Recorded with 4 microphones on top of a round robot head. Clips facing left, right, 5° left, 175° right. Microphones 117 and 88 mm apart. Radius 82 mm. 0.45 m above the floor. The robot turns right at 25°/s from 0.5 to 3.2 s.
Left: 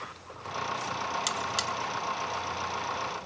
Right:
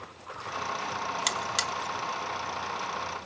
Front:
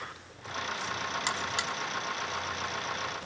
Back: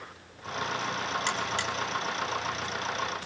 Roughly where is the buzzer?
Right.